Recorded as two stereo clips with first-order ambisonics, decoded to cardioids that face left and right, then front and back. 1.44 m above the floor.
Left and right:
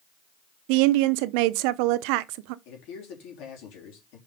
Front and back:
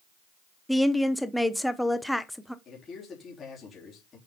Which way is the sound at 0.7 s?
90° right.